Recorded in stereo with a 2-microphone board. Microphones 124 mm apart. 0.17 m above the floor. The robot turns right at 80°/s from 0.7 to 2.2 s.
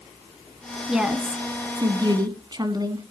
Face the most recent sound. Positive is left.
turn(degrees=-70)